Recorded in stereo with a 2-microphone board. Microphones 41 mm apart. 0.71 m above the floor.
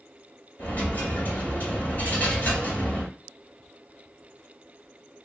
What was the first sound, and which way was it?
A dropped coin, 45° left (ahead or behind).